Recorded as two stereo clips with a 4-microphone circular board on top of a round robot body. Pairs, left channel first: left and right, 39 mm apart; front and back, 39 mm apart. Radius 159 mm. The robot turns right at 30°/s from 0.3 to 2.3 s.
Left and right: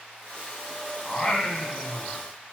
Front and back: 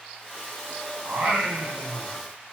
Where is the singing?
155° left, 1.6 m; by 2.2 s 170° right, 1.6 m.